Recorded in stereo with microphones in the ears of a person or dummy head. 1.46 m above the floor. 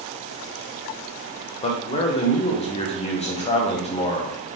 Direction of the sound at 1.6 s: 40° left (ahead or behind).